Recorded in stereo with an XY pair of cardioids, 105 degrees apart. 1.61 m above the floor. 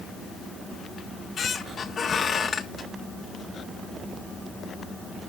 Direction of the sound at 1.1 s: 45° left.